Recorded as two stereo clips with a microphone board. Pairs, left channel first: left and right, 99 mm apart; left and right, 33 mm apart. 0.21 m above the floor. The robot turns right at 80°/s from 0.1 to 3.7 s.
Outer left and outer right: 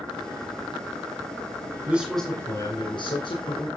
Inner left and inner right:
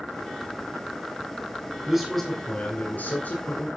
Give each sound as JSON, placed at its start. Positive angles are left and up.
{"t": 1.9, "sound": "a man speaking", "azimuth_deg": -20, "distance_m": 2.0}